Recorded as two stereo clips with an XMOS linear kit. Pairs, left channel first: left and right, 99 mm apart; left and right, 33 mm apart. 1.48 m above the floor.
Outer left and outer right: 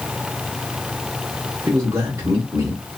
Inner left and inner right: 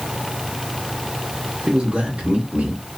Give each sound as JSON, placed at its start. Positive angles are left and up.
{"t": 1.7, "sound": "a man speaking", "side_deg": -30, "distance_m": 1.1}